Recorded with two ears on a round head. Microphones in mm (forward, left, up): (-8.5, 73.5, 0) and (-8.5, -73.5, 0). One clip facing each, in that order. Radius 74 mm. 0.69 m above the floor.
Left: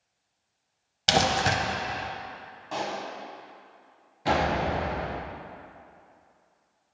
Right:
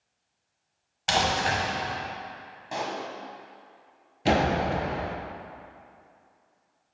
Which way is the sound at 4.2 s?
30° right (ahead or behind).